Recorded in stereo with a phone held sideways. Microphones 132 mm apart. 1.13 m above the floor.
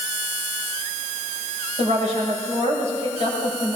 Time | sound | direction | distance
1.8 | a woman speaking | 60° right (ahead or behind) | 6 m